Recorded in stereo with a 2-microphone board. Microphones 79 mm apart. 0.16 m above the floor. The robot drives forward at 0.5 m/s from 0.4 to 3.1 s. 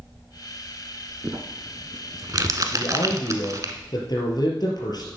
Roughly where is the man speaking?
Left.